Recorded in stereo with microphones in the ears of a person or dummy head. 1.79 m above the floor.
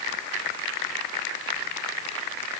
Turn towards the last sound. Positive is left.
No sound to turn to.